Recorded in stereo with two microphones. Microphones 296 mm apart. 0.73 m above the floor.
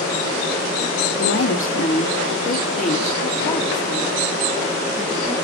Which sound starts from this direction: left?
A woman speaking, at 1.2 s.